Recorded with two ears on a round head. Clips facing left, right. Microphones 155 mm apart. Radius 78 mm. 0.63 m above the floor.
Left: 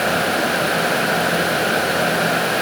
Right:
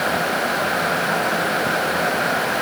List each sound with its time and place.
Only background noise.